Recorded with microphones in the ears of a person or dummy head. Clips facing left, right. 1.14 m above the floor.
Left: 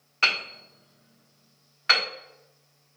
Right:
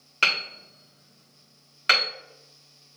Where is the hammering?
40° right (ahead or behind), 1.7 m.